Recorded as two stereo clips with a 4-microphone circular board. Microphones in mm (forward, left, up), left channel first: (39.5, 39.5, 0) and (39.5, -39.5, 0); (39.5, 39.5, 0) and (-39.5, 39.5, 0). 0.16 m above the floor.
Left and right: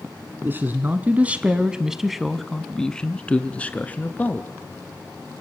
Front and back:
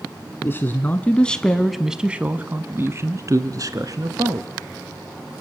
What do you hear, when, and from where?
0.4 s a man speaking: 40° right, 1.3 m; by 4.5 s 155° left, 1.9 m